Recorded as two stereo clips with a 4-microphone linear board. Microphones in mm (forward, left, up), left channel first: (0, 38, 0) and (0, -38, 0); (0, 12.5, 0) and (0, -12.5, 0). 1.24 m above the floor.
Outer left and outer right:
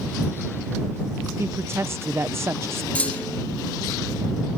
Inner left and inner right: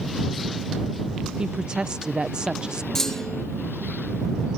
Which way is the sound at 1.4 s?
35° right (ahead or behind).